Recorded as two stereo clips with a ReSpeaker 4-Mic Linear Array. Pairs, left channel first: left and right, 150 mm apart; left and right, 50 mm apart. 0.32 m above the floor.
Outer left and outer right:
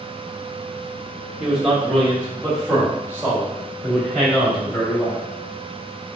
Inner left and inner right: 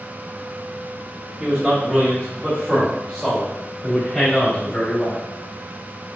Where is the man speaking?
10° right (ahead or behind), 1.2 m; by 5.2 s 25° left (ahead or behind), 3.5 m.